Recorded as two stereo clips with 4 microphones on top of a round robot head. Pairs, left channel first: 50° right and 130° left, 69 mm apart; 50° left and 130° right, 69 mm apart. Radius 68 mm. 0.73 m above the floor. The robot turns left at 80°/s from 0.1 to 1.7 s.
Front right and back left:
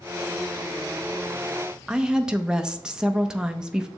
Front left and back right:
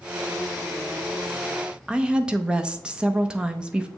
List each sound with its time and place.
1.9 s a woman speaking: 175° right, 0.5 m